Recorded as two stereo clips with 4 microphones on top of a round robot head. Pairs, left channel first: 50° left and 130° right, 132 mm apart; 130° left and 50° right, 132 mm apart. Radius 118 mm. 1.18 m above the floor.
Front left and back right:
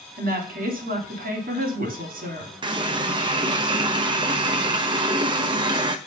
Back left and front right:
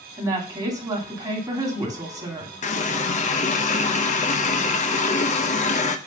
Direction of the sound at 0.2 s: 115° right.